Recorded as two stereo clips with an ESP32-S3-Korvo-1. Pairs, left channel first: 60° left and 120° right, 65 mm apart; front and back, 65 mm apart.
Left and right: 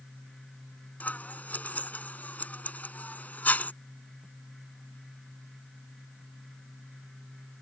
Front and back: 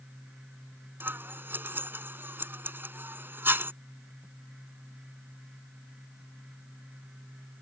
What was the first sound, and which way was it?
Scissors, 125° left.